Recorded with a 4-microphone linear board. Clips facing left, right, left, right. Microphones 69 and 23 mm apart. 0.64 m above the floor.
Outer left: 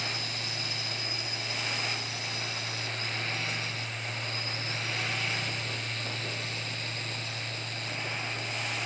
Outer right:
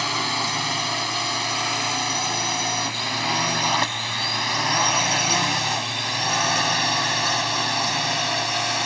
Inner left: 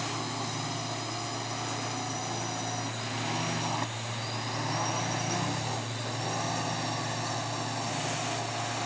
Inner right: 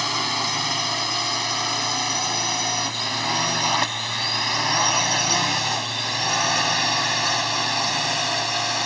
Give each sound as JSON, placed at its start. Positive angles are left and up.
{"t": 0.0, "sound": "a drone", "side_deg": -65}